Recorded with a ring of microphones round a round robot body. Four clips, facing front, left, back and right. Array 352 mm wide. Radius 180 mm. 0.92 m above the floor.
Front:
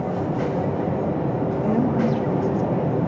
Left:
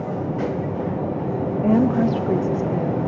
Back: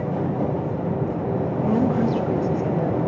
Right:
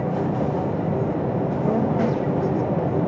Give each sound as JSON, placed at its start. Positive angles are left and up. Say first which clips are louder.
{"t": 1.6, "sound": "a woman speaking", "louder": "left 5 dB, back 1 dB", "azimuth_deg": 85, "distance_m": 1.4}